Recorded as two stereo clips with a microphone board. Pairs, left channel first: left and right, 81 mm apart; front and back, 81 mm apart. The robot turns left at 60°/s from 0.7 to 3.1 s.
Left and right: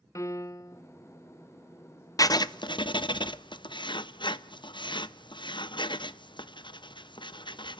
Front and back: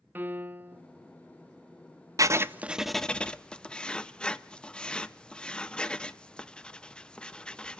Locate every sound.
0.1 s a piano: 120° left, 0.5 m; by 0.8 s 115° left, 0.5 m
2.2 s writing: 135° left, 0.5 m; by 7.8 s 80° left, 0.5 m